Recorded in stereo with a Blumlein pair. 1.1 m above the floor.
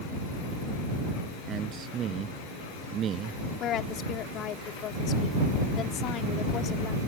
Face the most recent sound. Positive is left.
turn(degrees=30)